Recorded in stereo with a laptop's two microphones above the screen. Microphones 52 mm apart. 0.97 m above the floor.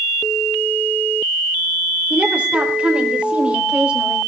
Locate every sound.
2.1 s a woman speaking: 20° right (ahead or behind), 4 m